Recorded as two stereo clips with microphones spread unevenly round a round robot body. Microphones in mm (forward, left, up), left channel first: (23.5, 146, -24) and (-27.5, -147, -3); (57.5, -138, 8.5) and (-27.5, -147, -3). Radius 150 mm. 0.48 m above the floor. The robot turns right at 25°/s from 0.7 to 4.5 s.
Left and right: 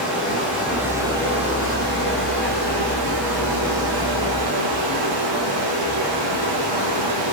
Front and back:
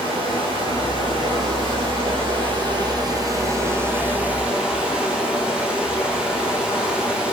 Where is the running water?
170° left, 3.5 m; by 7.3 s 95° right, 3.5 m.